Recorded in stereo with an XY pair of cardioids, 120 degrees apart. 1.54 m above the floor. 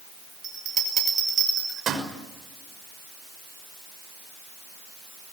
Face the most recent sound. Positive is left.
turn(degrees=-45)